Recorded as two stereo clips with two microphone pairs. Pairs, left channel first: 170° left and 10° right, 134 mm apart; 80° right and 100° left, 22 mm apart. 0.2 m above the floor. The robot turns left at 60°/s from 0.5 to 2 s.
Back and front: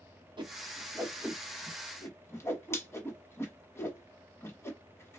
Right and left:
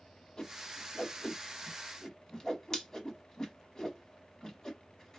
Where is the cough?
I don't hear a cough.